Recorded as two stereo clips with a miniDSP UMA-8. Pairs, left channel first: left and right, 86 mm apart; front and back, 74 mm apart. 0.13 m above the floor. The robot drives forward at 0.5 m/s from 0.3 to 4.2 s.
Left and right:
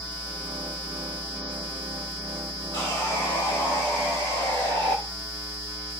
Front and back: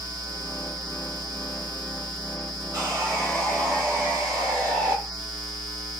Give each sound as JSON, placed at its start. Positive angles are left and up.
{"t": 2.7, "sound": "sawing", "azimuth_deg": 140, "distance_m": 3.5}